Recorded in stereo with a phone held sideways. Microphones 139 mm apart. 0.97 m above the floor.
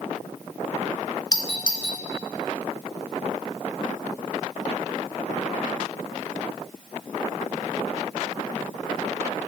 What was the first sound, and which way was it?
A doorbell, 30° left (ahead or behind).